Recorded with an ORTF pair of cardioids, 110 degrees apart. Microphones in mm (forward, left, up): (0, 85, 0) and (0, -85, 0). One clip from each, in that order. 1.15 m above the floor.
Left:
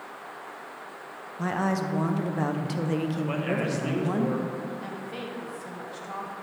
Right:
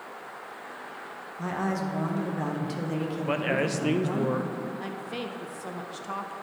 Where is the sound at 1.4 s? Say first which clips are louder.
Left 3 dB; 20° left, 0.7 m.